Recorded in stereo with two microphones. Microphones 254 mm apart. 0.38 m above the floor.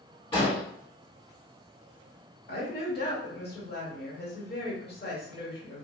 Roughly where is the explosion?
Left.